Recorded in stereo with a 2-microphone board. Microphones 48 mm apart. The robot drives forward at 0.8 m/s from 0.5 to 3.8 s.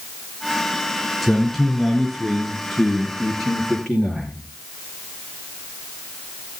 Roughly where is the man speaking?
Centre.